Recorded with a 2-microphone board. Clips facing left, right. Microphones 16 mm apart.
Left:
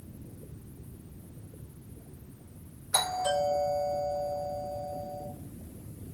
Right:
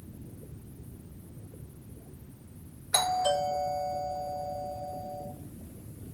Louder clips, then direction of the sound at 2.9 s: Right 2 dB; 30° right (ahead or behind).